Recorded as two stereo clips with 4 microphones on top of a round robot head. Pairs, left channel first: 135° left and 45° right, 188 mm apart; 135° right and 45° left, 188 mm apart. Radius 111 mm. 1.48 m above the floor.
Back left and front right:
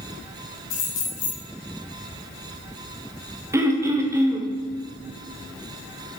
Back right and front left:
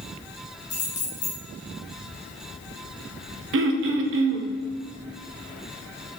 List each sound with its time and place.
0.7 s keys jangling: 165° left, 2.5 m
3.5 s throat clearing: 30° left, 0.8 m